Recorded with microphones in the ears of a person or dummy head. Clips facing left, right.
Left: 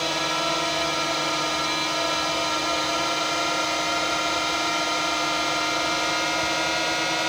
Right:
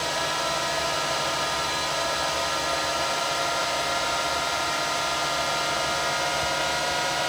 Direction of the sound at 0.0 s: 40° left (ahead or behind).